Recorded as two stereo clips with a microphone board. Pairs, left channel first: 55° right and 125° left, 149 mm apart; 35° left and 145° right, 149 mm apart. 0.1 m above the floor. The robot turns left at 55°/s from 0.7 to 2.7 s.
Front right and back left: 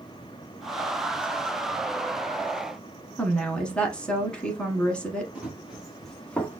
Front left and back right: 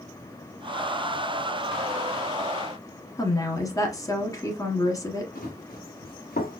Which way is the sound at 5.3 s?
40° left.